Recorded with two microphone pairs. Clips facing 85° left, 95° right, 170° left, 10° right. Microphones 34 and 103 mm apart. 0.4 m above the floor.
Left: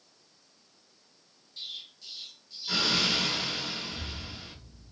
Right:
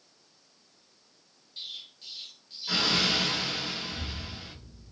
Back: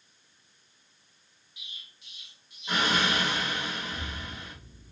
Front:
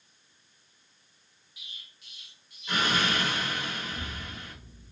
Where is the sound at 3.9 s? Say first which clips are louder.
Right 1 dB, back 1 dB; 110° right, 1.5 m.